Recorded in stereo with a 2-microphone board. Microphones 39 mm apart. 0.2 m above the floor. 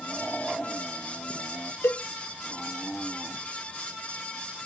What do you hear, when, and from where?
1.8 s a cowbell: 70° left (ahead or behind), 0.5 m